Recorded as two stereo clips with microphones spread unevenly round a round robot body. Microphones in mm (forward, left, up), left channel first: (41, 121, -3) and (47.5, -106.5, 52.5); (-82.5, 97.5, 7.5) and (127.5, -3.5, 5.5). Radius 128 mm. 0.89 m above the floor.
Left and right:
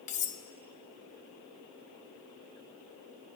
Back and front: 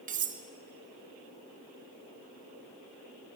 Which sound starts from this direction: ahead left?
Cutlery clinking, at 0.1 s.